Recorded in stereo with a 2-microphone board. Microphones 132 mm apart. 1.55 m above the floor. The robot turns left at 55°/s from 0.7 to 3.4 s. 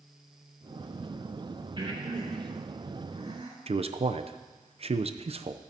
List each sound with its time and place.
1.8 s breathing: 40° right (ahead or behind), 3 m; by 3.6 s 50° right (ahead or behind), 3 m
3.7 s a man speaking: 50° right (ahead or behind), 0.6 m